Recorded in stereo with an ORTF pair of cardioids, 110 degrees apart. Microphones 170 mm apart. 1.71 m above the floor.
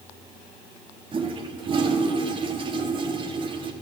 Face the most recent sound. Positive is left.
turn(degrees=-30)